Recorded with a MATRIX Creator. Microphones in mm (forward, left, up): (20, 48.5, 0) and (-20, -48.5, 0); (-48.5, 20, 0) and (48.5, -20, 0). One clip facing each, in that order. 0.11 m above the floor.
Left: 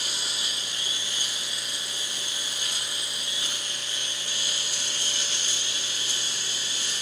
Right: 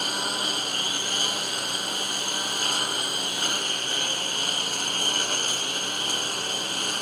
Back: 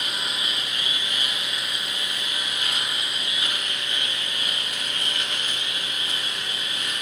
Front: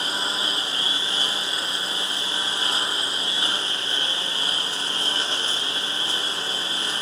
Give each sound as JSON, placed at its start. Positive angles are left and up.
{"t": 0.0, "sound": "a lawn mower", "azimuth_deg": -80}